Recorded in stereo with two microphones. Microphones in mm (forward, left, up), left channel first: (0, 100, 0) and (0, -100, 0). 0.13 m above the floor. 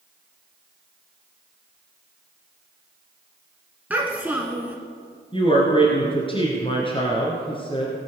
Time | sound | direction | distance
3.9 | a child speaking | 10° right (ahead or behind) | 1.2 m
5.3 | a woman speaking | 25° left (ahead or behind) | 2 m